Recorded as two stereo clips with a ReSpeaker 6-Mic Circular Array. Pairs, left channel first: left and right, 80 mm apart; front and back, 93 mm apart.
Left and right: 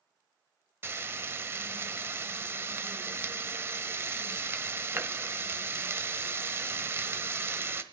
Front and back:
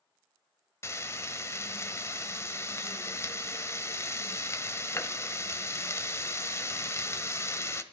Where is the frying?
45° right, 1.2 m.